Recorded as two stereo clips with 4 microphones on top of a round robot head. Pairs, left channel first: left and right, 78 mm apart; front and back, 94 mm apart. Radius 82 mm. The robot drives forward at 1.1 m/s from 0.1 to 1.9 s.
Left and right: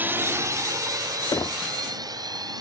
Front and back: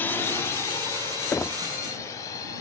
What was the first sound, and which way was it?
A drone, 50° right.